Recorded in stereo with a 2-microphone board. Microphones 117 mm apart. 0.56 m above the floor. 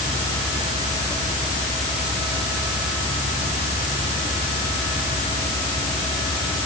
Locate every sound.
Only background noise.